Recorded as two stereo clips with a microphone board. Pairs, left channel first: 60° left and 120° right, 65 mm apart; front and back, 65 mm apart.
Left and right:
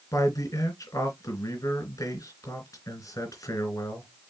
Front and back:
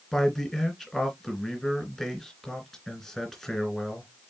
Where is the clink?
No clink in this recording.